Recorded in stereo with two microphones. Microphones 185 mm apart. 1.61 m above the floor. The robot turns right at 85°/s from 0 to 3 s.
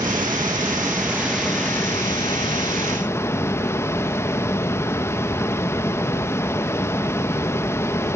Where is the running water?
20° right (ahead or behind), 0.8 m; by 8.2 s 15° left (ahead or behind), 0.8 m.